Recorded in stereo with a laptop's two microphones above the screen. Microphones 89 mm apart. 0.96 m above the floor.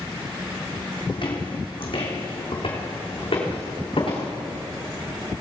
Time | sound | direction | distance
1.1 | footsteps | 65° left (ahead or behind) | 2 m